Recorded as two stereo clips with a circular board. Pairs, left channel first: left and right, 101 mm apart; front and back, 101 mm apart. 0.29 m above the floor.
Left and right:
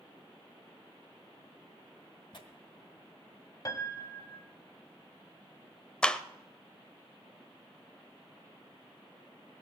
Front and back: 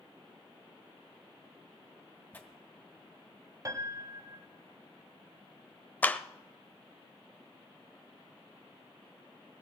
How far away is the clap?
About 0.7 m.